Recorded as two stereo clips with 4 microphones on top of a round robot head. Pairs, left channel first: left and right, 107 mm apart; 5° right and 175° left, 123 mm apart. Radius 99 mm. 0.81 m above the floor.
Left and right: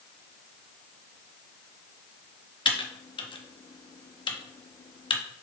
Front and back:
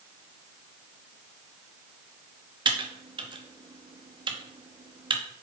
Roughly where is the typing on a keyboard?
Behind left.